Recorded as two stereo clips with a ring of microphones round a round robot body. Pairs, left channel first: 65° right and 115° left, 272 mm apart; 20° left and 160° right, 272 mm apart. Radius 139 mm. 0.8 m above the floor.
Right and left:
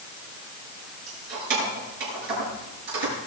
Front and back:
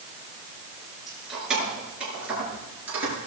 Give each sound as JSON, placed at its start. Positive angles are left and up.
{"t": 1.1, "sound": "keys jangling", "azimuth_deg": 115, "distance_m": 8.0}